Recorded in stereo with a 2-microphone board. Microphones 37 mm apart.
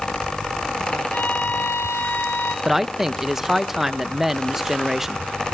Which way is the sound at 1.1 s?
80° left.